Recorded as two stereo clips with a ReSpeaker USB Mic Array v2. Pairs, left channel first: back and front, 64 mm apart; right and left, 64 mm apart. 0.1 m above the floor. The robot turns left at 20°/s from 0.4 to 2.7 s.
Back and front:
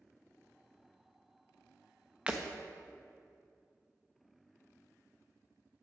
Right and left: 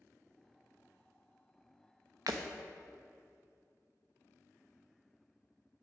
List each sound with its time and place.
2.3 s breaking glass: 75° left, 1.0 m; by 2.4 s 70° left, 1.0 m